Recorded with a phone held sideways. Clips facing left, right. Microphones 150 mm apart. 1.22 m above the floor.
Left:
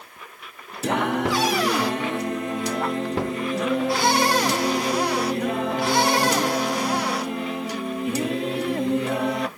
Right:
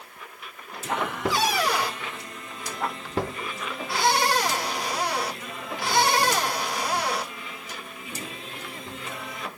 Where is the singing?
70° left (ahead or behind).